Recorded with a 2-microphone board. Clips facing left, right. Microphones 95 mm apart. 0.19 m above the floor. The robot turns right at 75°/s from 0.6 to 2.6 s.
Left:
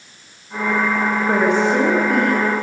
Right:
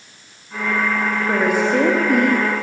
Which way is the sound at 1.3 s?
10° left (ahead or behind).